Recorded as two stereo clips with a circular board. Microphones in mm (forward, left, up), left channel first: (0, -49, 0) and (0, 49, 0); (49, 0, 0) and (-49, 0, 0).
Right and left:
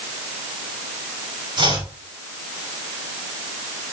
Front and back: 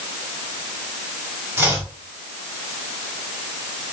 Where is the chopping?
115° left, 4.5 m.